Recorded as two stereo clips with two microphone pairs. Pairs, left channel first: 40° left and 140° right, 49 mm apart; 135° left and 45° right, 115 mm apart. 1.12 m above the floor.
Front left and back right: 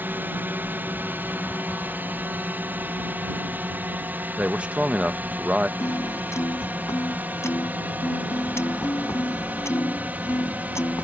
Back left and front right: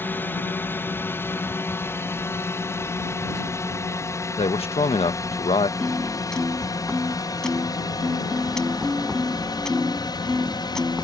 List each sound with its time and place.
0.0 s a drone: 160° right; by 11.0 s 175° left
4.4 s a man speaking: 160° left
5.8 s a piano: 50° left